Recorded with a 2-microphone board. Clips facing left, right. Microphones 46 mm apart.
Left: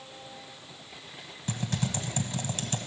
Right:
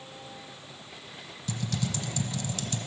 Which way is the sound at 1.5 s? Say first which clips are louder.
Left 1 dB; 35° left (ahead or behind).